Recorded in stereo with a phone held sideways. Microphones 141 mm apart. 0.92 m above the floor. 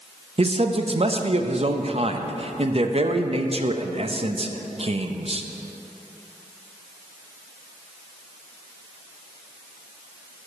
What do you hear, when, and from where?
0.4 s a man speaking: 45° right (ahead or behind), 0.7 m